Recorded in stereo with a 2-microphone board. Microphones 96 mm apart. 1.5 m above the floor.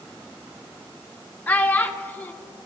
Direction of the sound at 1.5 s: 15° left (ahead or behind).